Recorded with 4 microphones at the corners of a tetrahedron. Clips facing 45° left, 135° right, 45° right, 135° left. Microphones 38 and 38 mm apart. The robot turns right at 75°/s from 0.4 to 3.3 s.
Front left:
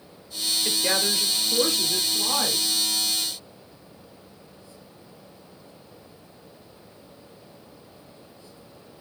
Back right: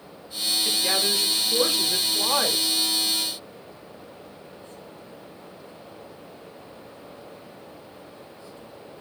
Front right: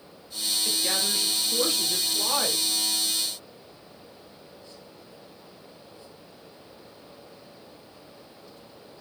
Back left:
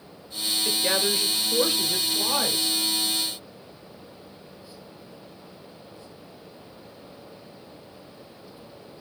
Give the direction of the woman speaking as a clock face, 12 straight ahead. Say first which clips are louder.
Even, back left 5 dB; 8 o'clock.